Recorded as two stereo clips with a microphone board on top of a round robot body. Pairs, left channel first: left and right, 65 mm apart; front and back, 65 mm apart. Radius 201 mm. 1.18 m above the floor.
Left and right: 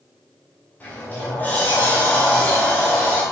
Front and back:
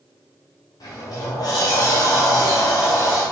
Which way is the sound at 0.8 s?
25° left.